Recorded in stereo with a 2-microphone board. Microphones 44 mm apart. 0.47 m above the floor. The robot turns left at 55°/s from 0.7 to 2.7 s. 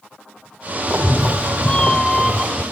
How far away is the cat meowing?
About 0.6 m.